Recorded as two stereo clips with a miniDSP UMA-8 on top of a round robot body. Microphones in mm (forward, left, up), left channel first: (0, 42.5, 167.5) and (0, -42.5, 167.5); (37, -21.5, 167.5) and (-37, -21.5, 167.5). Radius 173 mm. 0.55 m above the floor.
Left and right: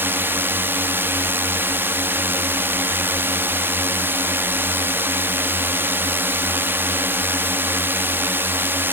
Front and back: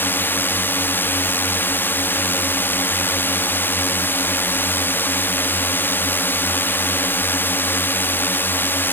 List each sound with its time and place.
0.0 s a drone: 40° right